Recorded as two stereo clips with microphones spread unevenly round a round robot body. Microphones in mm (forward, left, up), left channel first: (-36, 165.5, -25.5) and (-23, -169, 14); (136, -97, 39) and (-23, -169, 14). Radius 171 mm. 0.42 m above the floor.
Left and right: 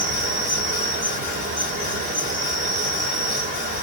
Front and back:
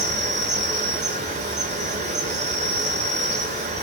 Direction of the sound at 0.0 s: 155° right.